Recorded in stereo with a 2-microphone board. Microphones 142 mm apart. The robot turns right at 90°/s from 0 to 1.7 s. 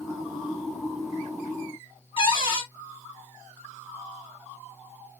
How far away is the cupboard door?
About 1.0 m.